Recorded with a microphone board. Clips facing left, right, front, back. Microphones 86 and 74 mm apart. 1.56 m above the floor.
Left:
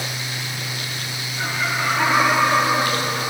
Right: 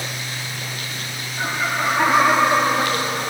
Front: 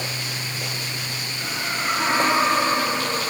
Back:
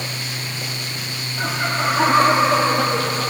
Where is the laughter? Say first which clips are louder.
Right 1 dB, back 7 dB; 160° right, 4.5 m; by 3.3 s 170° right, 3.5 m.